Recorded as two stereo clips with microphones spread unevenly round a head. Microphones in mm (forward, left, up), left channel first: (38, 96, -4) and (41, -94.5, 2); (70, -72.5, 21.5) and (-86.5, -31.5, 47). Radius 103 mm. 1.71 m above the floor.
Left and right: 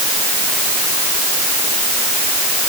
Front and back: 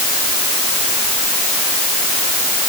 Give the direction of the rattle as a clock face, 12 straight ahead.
No rattle in this recording.